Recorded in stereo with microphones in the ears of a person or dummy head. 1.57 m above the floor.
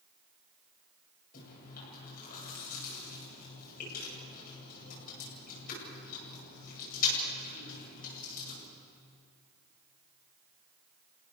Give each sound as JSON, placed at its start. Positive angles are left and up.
{"t": 1.3, "sound": "chewing", "side_deg": 50, "distance_m": 10.0}